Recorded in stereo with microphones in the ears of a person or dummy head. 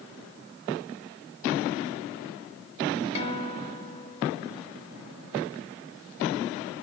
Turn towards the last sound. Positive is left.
turn(degrees=35)  # may be behind; listen again after turning